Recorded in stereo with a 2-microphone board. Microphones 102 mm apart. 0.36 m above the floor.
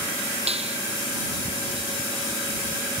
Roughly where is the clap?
Right.